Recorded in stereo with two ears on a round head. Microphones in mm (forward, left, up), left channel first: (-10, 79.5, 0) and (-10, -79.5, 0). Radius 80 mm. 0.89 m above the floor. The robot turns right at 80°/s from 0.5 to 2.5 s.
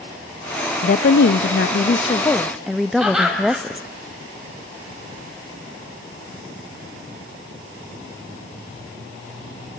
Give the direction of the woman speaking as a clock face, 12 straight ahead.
10 o'clock.